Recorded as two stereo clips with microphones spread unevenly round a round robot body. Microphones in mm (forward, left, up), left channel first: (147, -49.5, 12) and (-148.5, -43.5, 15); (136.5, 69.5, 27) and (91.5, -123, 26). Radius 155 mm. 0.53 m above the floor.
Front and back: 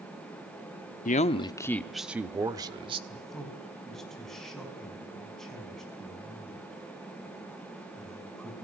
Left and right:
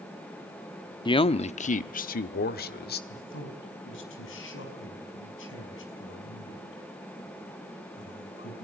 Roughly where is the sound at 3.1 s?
Left.